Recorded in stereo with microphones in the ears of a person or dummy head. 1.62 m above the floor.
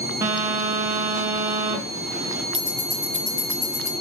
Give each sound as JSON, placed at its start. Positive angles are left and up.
{"t": 0.2, "sound": "a phone buzzing", "side_deg": -5, "distance_m": 0.8}
{"t": 2.5, "sound": "ticking", "side_deg": 10, "distance_m": 3.5}